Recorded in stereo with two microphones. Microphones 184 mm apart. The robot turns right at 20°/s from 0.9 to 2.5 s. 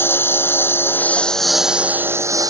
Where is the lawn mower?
170° left; by 2.5 s 160° right.